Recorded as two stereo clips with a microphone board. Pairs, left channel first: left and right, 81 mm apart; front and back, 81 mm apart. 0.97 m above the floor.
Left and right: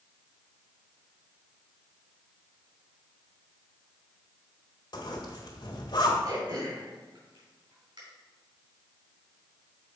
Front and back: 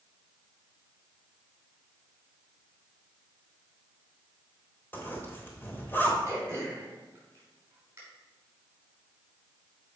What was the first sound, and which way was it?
A zipper, 65° left.